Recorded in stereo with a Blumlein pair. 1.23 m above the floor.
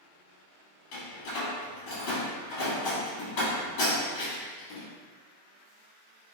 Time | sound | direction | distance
0.9 | a door slam | 45° left | 1.5 m